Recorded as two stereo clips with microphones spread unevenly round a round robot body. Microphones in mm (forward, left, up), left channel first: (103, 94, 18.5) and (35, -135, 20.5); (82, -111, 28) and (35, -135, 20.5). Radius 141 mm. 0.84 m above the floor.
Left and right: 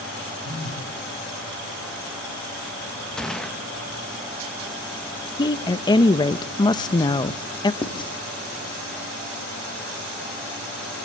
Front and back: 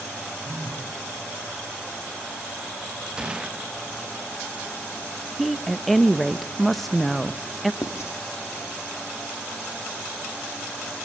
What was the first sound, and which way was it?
A phone buzzing, 135° right.